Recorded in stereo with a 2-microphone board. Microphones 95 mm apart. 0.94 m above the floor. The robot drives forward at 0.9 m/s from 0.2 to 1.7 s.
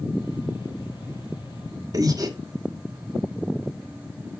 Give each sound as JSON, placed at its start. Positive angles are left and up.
{"t": 1.9, "sound": "breathing", "side_deg": -40, "distance_m": 1.0}